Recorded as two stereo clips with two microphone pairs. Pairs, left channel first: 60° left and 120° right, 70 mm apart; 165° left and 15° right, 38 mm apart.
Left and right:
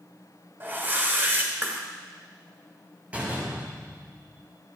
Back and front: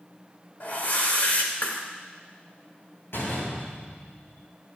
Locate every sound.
0.6 s a whoosh: 170° right, 2.5 m
3.1 s a door slam: 170° left, 6 m